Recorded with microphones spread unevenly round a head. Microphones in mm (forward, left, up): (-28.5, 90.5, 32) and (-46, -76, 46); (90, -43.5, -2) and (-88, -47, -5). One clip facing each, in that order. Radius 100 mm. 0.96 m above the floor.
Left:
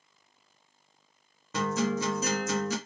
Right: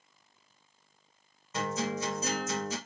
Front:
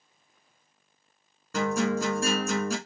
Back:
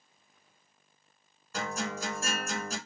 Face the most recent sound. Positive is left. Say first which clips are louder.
# left 4 dB, front 10 dB
turn(degrees=45)